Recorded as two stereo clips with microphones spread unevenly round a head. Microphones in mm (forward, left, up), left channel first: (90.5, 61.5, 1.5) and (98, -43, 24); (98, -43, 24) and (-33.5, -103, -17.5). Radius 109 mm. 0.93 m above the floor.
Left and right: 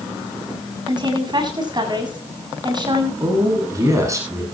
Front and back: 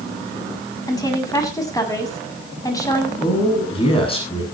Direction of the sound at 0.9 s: 40° right.